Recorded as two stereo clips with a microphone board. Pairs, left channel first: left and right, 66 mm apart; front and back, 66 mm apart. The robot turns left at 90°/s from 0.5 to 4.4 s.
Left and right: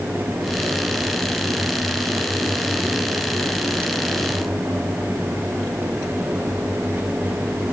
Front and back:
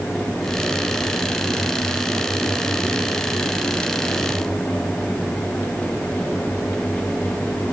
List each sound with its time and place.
Only background noise.